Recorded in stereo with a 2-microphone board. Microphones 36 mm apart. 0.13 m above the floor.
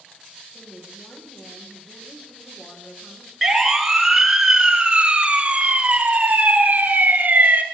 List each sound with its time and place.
0.5 s a woman speaking: 60° left (ahead or behind), 8 m
3.4 s a siren: centre (ahead or behind), 2 m; by 7.6 s 50° right (ahead or behind), 2.5 m